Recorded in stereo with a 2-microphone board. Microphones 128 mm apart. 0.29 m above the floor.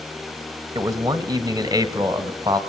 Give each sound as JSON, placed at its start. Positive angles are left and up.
{"t": 0.8, "sound": "a man speaking", "side_deg": -30, "distance_m": 1.2}